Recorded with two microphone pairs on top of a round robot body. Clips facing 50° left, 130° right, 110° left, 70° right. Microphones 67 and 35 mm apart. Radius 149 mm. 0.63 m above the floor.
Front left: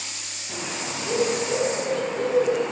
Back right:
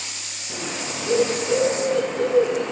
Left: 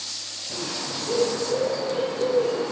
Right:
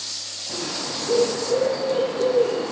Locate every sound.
0.5 s a bird: 15° right, 3.5 m